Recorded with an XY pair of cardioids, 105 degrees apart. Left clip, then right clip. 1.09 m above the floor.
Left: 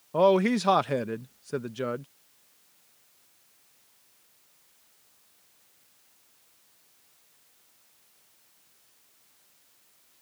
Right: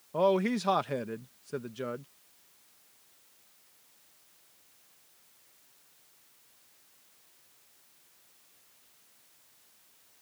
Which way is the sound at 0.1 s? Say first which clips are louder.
Left 5 dB; 35° left.